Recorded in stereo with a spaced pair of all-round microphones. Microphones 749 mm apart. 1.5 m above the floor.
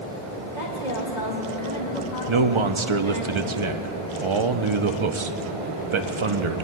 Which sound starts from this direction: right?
A man speaking, at 2.3 s.